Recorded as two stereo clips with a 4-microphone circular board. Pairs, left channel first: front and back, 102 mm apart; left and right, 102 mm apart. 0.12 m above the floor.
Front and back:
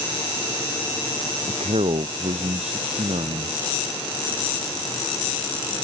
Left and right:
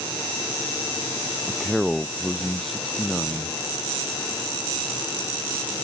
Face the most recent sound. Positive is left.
turn(degrees=175)